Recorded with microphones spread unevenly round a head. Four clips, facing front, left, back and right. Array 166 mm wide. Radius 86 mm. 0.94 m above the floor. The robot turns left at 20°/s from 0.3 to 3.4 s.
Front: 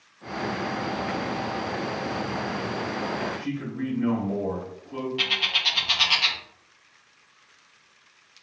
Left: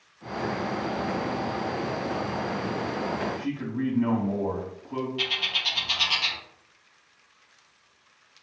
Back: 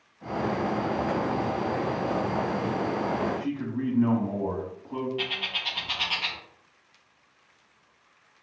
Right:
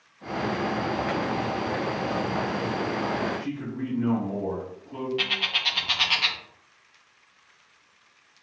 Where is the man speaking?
130° left, 1.4 m.